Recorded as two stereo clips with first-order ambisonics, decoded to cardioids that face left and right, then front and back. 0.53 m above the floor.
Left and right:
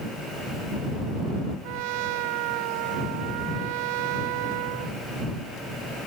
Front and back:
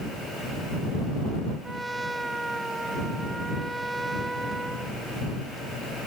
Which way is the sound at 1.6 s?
95° right.